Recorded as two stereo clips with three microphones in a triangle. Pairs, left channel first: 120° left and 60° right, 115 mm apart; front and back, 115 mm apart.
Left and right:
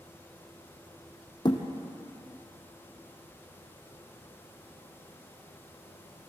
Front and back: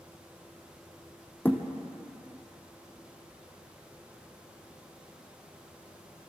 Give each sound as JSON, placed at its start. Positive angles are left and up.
{"t": 1.4, "sound": "a thud", "azimuth_deg": 70, "distance_m": 2.5}